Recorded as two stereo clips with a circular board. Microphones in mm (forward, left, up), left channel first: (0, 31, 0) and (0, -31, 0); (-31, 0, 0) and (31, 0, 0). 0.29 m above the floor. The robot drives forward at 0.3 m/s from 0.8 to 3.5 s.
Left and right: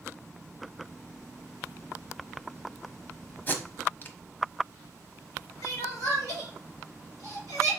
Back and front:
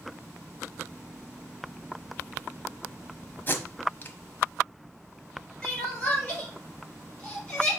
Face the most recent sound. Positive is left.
turn(degrees=105)